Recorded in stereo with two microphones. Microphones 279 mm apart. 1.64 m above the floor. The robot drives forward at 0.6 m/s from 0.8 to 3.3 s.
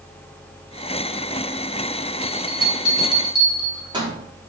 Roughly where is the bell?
Centre.